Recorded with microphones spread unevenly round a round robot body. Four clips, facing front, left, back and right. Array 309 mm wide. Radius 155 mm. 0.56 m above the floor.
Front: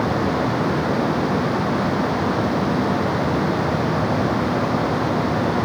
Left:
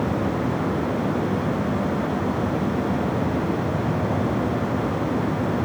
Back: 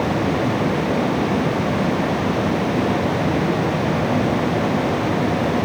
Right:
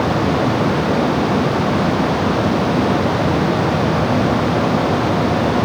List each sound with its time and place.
Only background noise.